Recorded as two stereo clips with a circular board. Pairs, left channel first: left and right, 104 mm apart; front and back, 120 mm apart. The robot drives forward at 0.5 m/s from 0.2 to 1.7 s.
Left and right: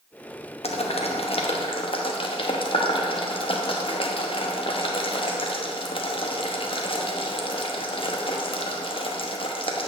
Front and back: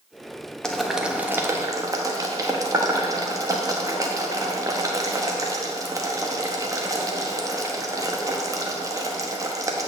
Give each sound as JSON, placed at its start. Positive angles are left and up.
{"t": 0.6, "sound": "boiling", "azimuth_deg": 85, "distance_m": 0.8}